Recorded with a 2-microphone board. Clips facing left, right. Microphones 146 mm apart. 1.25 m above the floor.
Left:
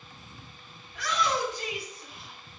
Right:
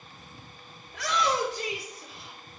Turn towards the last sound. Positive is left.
turn(degrees=-85)